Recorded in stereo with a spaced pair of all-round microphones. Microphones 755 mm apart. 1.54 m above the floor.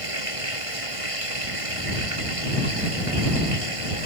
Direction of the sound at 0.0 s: 45° right (ahead or behind).